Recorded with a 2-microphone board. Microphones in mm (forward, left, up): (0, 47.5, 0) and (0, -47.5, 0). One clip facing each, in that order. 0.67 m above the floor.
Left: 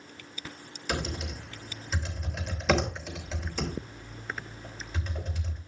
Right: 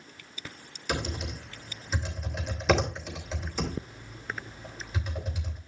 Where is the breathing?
I don't hear breathing.